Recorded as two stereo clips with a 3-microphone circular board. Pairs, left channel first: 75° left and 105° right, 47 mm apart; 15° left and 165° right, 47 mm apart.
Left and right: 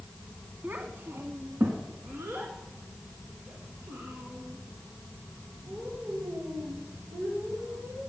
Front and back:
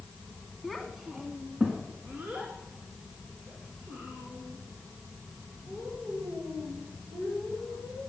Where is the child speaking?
75° right, 1.3 m; by 8.0 s 125° right, 7.5 m.